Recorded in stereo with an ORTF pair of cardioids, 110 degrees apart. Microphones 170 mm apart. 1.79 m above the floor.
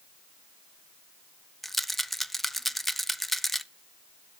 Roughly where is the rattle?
Ahead.